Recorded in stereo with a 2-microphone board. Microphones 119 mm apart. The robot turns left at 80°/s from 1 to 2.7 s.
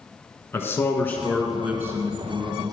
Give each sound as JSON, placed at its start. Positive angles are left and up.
{"t": 0.5, "sound": "a man speaking", "azimuth_deg": 35, "distance_m": 1.4}